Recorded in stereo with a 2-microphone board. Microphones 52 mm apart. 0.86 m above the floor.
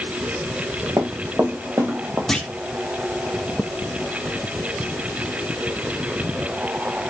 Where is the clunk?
5° left (ahead or behind), 1.2 m.